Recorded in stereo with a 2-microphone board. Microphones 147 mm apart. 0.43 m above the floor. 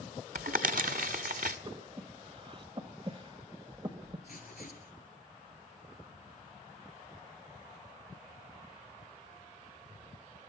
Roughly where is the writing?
Left.